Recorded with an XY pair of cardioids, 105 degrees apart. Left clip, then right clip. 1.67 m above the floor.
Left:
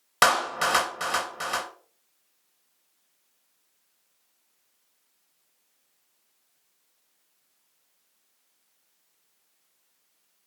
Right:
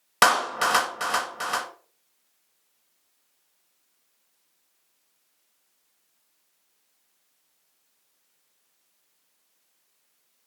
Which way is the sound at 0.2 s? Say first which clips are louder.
Right 1 dB; 10° right.